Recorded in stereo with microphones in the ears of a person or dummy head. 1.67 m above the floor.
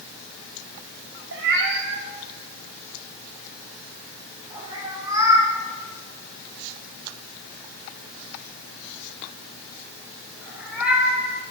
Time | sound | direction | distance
1.3 | a cat meowing | 60° right (ahead or behind) | 2 m